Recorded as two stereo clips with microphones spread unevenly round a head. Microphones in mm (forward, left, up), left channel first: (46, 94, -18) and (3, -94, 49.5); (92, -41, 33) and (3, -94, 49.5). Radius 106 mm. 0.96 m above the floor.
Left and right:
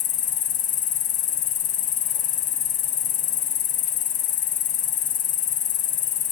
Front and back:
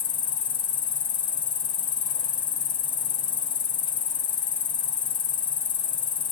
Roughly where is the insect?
Ahead.